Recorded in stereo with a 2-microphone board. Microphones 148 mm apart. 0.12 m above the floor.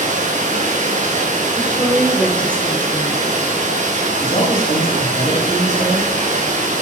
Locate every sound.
0.0 s running water: 55° right (ahead or behind), 3 m
1.6 s a woman speaking: 10° left (ahead or behind), 3 m
4.2 s a man speaking: 45° left (ahead or behind), 5.5 m